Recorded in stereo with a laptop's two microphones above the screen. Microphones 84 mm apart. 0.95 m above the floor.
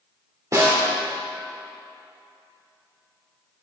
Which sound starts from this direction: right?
A snare drum, at 0.5 s.